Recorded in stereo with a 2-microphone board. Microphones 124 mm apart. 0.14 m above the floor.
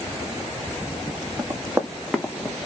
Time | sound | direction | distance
1.4 | running footsteps | 30° right (ahead or behind) | 1.2 m